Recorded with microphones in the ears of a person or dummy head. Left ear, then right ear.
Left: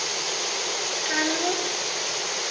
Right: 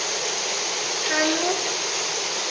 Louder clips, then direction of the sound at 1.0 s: Right 3 dB; 10° right (ahead or behind).